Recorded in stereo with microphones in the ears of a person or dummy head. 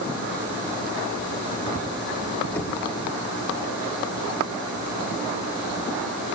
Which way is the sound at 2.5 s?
10° left (ahead or behind).